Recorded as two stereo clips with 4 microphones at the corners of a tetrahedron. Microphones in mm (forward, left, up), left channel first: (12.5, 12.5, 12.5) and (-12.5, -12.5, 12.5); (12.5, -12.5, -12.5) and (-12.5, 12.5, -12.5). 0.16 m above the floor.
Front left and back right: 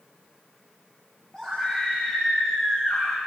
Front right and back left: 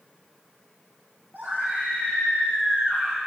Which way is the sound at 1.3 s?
115° left.